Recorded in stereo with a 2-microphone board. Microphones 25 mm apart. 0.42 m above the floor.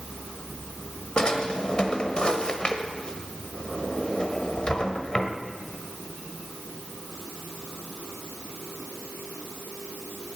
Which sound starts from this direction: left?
A drawer, at 1.2 s.